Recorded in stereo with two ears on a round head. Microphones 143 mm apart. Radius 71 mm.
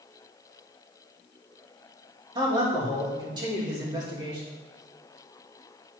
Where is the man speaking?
25° right (ahead or behind), 3 m.